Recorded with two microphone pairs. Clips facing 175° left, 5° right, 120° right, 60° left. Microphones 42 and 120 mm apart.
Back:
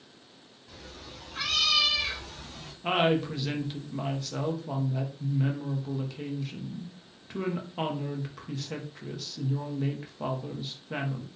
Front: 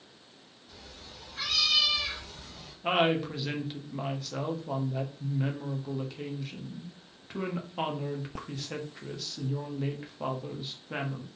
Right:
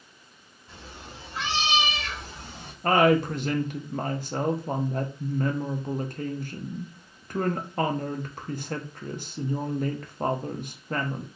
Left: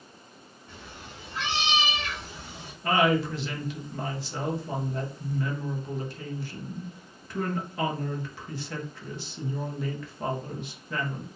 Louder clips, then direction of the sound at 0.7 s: Back 4 dB, right 1 dB; straight behind.